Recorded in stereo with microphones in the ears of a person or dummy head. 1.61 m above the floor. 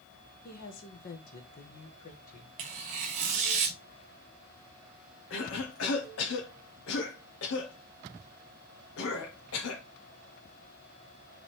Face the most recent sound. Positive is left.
turn(degrees=75)  # may be behind; listen again after turning